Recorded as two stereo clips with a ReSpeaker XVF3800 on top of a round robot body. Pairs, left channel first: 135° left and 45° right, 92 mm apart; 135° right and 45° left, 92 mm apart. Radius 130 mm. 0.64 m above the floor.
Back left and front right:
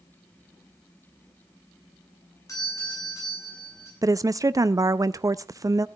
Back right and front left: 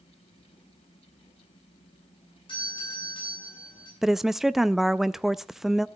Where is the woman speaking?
40° right, 0.6 m.